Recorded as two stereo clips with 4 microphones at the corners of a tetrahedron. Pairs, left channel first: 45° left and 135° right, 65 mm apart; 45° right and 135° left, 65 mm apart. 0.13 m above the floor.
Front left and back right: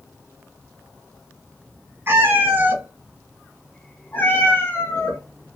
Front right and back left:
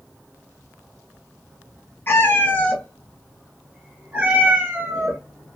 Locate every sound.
2.1 s a cat meowing: 90° right, 1.0 m; by 5.2 s 85° left, 1.1 m